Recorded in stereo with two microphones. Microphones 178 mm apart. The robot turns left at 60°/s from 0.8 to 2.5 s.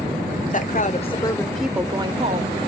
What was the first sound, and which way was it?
A woman speaking, 50° left.